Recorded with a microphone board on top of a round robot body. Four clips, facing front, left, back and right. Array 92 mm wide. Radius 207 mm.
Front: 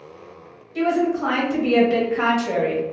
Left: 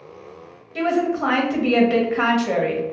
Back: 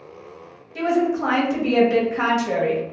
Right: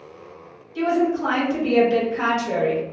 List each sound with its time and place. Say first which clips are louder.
0.8 s a woman speaking: even, even; 105° left, 1.2 m